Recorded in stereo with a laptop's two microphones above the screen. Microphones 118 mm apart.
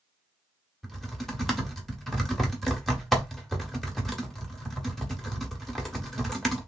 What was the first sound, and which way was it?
Typing on a keyboard, 5° left (ahead or behind).